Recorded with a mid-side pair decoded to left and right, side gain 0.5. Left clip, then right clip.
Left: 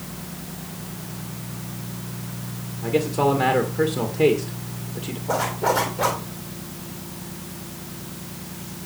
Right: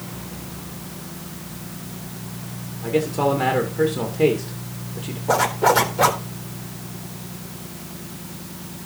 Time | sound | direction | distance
2.8 | a man speaking | 5° left | 2.5 m
5.3 | a zipper | 40° right | 4 m